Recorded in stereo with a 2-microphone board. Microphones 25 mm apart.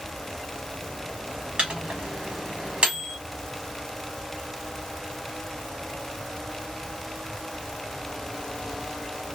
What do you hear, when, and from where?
1.6 s a microwave: 45° right (ahead or behind), 1.2 m